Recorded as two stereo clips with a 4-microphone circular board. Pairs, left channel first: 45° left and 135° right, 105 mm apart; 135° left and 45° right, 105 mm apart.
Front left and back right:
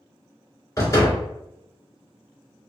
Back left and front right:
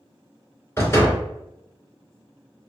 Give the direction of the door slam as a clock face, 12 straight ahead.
9 o'clock.